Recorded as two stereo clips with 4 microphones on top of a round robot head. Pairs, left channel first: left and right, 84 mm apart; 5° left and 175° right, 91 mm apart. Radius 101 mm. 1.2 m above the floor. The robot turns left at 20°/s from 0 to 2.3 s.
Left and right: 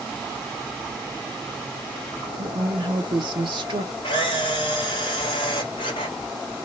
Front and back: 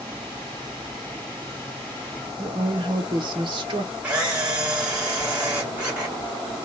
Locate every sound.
2.4 s a woman speaking: 130° right, 0.6 m
4.0 s a camera shutter: 115° left, 0.6 m